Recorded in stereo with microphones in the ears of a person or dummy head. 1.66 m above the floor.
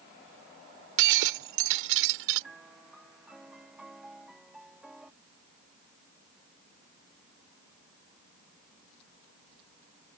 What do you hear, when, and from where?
1.0 s breaking glass: 75° right (ahead or behind)
2.4 s a piano: 5° right (ahead or behind)